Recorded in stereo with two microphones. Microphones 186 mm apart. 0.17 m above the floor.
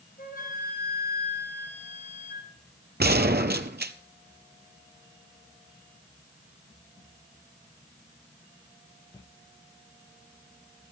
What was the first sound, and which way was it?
A flute, 55° left (ahead or behind).